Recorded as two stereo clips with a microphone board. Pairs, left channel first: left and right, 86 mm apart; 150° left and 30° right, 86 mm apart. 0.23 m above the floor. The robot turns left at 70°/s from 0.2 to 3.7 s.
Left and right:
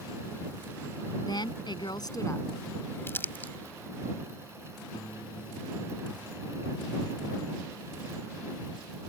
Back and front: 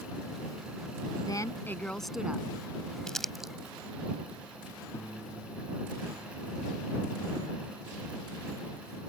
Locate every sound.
1.3 s a woman speaking: 115° left; by 2.5 s 35° left
3.1 s crumpling: 75° left; by 3.5 s 45° left
4.9 s a piano: 95° left